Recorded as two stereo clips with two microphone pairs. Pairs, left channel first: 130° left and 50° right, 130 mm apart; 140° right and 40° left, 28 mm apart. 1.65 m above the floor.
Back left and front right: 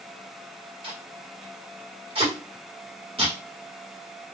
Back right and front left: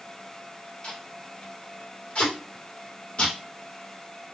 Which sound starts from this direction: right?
Tape being pulled, at 0.8 s.